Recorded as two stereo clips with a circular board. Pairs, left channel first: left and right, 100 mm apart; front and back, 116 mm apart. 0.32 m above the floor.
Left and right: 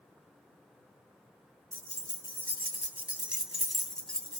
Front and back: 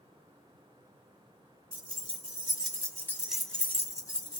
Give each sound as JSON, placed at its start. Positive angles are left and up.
{"t": 1.7, "sound": "keys jangling", "azimuth_deg": -150, "distance_m": 1.0}